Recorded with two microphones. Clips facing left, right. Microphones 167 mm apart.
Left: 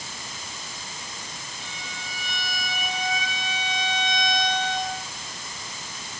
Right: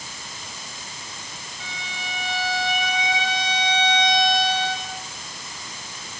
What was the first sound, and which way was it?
A violin, 80° right.